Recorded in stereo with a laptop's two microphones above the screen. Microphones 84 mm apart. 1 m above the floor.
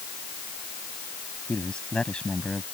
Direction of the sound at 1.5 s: 10° left (ahead or behind).